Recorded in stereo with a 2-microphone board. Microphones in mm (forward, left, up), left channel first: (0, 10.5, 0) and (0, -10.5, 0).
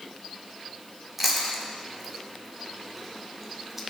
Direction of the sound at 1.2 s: 10° right (ahead or behind).